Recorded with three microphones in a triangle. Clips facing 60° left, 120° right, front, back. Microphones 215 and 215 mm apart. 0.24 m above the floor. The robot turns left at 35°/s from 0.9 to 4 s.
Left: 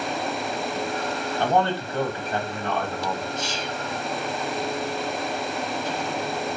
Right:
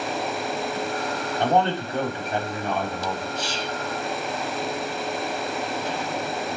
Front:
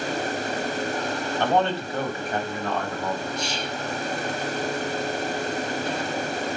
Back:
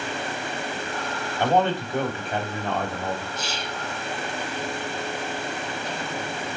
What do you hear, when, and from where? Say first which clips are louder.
1.4 s a man speaking: right 1 dB, back 2 dB; 130° right, 1.2 m; by 3.3 s 165° left, 1.2 m
3.4 s whispering: right 1 dB, front 3 dB; 95° right, 1.2 m; by 3.8 s 110° right, 1.2 m